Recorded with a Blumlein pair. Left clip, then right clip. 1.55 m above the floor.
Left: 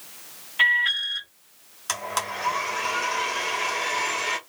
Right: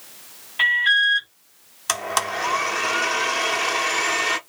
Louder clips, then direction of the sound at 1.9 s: Right 5 dB; 20° right.